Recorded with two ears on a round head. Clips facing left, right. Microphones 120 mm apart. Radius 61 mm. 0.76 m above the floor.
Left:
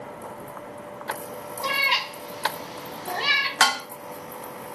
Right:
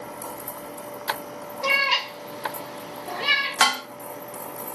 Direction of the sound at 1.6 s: 15° right (ahead or behind).